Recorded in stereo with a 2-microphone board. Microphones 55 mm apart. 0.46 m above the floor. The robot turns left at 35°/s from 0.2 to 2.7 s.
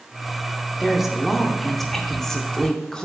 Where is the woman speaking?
10° right (ahead or behind), 0.7 m; by 3.1 s 15° left (ahead or behind), 0.7 m.